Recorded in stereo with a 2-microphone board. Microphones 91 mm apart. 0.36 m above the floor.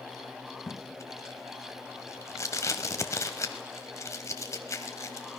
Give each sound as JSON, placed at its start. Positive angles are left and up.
{"t": 0.7, "sound": "tape being pulled", "side_deg": 30, "distance_m": 1.0}